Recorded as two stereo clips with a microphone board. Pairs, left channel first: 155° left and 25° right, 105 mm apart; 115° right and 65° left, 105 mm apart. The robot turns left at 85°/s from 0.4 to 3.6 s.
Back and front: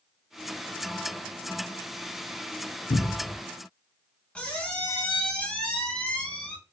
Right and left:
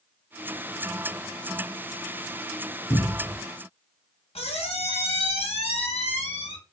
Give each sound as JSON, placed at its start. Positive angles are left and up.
{"t": 2.9, "sound": "a cupboard door", "azimuth_deg": 160, "distance_m": 0.5}
{"t": 4.3, "sound": "a squeak", "azimuth_deg": -125, "distance_m": 0.7}